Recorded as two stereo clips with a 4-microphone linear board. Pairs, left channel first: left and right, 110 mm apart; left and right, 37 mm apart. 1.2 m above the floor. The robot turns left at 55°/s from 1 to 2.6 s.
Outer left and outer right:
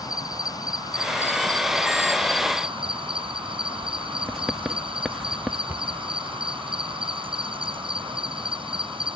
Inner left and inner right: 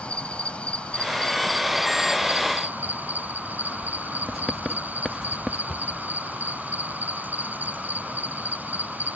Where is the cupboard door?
15° right (ahead or behind).